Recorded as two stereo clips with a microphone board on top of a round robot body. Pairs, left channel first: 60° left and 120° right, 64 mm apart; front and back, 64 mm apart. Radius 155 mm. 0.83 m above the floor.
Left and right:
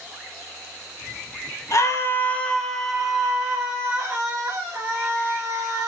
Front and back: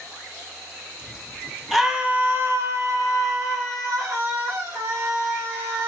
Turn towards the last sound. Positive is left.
turn(degrees=-175)